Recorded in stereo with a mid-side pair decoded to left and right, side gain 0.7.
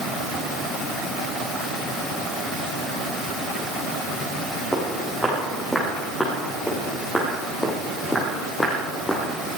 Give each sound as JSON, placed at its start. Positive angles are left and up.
{"t": 4.7, "sound": "footsteps", "azimuth_deg": 5, "distance_m": 6.0}